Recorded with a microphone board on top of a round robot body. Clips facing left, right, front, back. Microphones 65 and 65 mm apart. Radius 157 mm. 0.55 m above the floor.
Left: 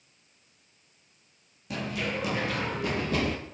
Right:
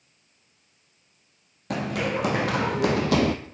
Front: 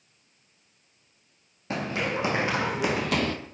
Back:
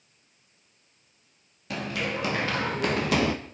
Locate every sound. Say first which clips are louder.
1.7 s running footsteps: right 5 dB, front 2 dB; 60° right, 2.5 m; by 3.4 s 110° right, 1.0 m